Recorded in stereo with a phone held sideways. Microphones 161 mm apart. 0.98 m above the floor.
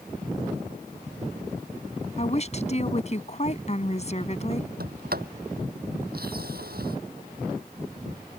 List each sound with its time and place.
2.2 s a woman speaking: 45° left (ahead or behind)
4.8 s a sliding door: 70° right (ahead or behind)